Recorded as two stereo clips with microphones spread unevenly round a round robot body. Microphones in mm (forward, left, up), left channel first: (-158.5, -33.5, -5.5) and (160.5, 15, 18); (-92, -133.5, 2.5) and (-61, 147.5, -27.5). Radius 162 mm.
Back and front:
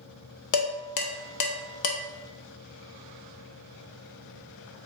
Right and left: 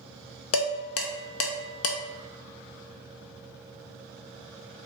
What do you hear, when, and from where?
0.5 s dishes clattering: 140° right, 0.7 m